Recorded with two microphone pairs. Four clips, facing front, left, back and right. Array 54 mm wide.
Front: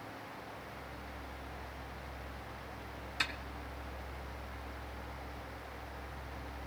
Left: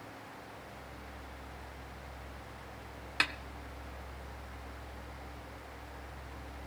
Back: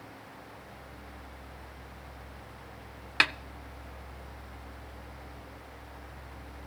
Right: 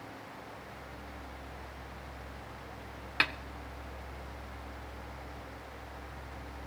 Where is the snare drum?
170° right, 0.5 m.